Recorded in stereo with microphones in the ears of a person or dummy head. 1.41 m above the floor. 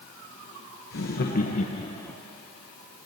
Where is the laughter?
55° left (ahead or behind), 0.9 m; by 2.2 s 5° left (ahead or behind), 0.5 m.